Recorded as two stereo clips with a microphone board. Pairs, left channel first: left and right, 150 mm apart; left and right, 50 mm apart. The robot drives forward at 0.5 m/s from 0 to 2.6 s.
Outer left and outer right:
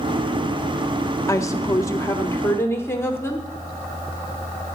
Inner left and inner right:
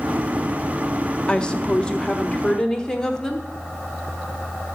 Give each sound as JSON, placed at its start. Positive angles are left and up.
{"t": 1.3, "sound": "a woman speaking", "side_deg": 20, "distance_m": 0.7}